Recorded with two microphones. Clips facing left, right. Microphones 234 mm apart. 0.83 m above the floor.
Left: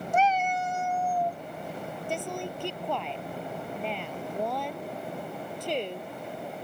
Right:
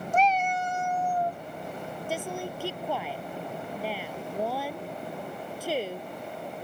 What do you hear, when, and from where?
0.1 s a cat meowing: 10° left (ahead or behind); by 1.4 s centre (ahead or behind)
2.1 s a woman speaking: 5° right (ahead or behind)